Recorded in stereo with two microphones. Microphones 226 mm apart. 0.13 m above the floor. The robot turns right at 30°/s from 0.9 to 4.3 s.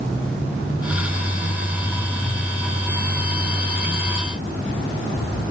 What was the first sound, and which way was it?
Only background noise.